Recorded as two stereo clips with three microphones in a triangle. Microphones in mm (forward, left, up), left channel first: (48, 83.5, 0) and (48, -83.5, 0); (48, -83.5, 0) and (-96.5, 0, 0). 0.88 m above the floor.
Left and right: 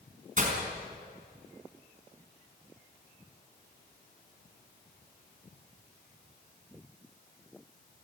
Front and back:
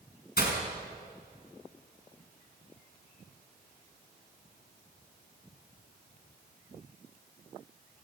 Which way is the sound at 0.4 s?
50° right.